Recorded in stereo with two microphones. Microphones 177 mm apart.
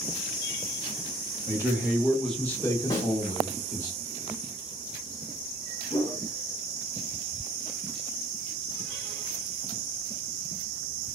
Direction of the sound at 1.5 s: 15° right (ahead or behind).